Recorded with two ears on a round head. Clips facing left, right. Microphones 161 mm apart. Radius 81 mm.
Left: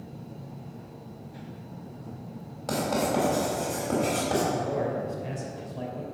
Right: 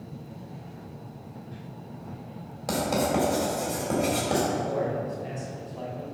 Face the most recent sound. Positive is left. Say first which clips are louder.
# even
turn(degrees=15)  # may be behind; listen again after turning